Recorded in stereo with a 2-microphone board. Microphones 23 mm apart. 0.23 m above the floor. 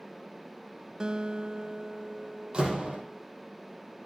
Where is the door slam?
30° right (ahead or behind), 6.5 m.